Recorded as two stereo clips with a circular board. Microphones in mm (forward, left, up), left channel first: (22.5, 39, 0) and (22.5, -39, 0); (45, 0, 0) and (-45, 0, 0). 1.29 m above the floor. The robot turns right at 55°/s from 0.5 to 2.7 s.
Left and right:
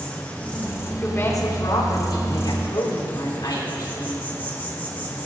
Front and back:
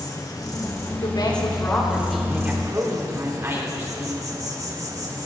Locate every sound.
0.0 s an insect: 30° left, 1.6 m; by 5.3 s 150° left, 1.6 m
1.0 s a woman speaking: 30° left, 3.5 m; by 4.2 s 125° left, 3.5 m